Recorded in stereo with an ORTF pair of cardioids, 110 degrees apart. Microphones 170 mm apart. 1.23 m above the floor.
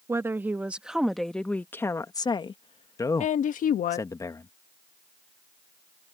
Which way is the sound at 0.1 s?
15° right.